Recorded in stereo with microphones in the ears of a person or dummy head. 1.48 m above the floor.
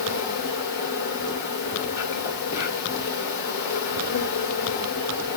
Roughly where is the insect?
Left.